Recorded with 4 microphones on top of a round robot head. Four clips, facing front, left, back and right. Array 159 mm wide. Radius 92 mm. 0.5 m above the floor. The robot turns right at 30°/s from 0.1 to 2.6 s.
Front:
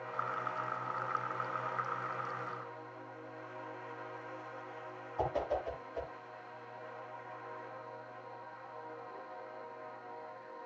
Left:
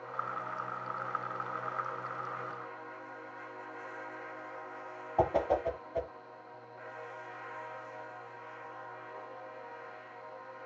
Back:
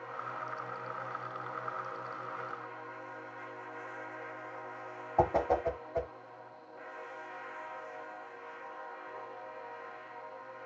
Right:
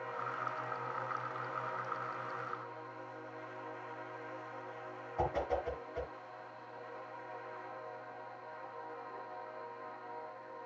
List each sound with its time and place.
5.2 s a whoosh: 150° left, 2 m